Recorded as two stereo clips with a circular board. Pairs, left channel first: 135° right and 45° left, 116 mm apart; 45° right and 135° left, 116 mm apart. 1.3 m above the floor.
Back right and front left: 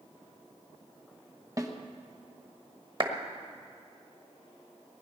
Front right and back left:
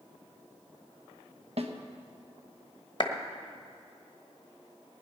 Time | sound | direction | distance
1.6 | a snare drum | 105° left | 1.1 m
3.0 | a clap | straight ahead | 1.3 m